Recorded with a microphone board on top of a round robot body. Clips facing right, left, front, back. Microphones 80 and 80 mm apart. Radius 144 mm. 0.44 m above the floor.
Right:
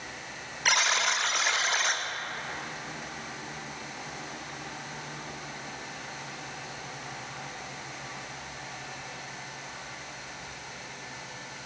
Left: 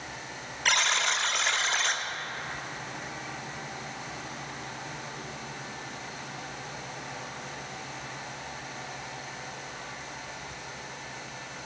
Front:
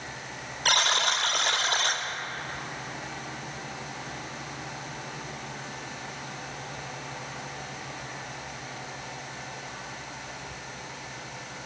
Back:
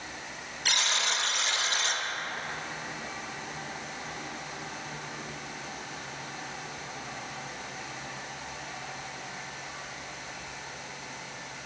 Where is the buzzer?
5° right, 0.8 m.